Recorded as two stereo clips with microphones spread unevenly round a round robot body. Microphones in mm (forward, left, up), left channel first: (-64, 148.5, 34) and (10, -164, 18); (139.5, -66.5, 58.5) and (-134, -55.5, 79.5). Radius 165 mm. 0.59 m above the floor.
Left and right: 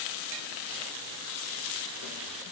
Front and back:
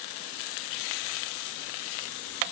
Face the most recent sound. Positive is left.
No sound to turn to.